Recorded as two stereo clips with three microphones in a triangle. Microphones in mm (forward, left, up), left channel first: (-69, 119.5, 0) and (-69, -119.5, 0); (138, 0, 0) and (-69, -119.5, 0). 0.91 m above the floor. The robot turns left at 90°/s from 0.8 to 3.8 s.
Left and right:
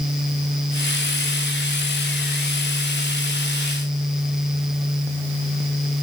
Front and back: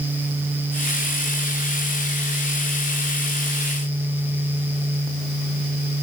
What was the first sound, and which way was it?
Only background noise.